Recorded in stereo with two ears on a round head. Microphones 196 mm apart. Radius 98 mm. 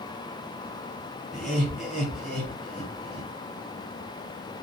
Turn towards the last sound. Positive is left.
turn(degrees=0)  # may be behind; listen again after turning